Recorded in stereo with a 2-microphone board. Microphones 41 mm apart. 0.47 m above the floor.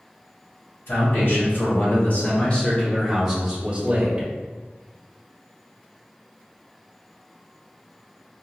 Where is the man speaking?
60° left (ahead or behind), 1.7 m; by 4.3 s 35° right (ahead or behind), 1.1 m.